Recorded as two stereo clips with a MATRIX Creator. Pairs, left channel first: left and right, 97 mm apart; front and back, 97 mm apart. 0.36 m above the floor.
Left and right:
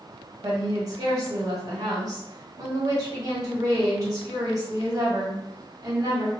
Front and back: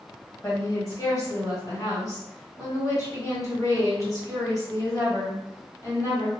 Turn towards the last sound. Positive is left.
turn(degrees=-45)